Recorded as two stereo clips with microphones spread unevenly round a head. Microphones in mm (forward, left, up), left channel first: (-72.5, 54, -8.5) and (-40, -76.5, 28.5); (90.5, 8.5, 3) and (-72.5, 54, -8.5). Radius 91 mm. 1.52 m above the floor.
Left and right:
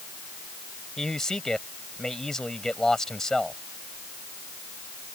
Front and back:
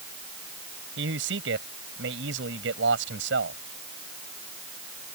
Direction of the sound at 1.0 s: 170° right.